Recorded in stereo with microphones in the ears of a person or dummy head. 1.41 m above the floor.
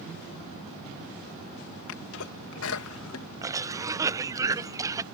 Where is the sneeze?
75° left (ahead or behind).